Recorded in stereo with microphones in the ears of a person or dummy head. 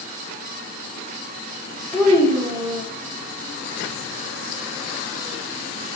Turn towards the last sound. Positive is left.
turn(degrees=-5)  # may be behind; listen again after turning